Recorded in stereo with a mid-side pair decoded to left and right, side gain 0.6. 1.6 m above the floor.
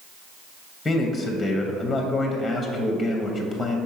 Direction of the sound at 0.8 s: 15° left.